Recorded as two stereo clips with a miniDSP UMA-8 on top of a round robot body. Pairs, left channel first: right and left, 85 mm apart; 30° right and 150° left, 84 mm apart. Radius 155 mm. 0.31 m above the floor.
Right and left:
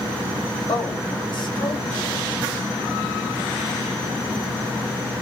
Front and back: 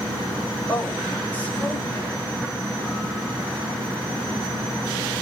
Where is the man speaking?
95° right, 3 m.